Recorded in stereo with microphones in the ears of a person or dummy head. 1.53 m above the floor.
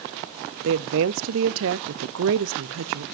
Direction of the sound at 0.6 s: 70° right (ahead or behind).